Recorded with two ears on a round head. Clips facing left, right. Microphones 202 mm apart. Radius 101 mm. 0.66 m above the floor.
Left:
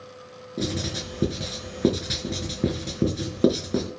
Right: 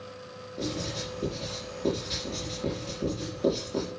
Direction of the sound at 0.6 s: 70° left (ahead or behind).